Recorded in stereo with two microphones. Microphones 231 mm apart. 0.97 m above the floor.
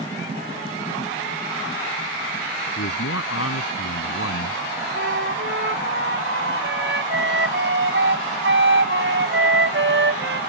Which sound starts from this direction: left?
A man speaking, at 2.8 s.